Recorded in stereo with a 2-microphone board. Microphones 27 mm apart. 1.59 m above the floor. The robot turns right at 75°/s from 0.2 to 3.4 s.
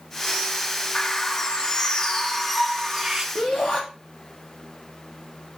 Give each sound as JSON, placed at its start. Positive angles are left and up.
{"t": 0.9, "sound": "a bird", "azimuth_deg": 45, "distance_m": 1.0}
{"t": 3.4, "sound": "a shout", "side_deg": 30, "distance_m": 3.0}